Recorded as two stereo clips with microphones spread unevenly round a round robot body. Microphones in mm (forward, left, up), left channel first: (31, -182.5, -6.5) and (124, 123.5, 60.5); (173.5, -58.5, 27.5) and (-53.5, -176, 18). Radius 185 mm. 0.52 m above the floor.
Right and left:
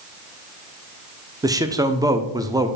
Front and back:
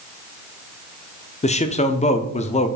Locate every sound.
1.4 s a man speaking: 20° right, 0.7 m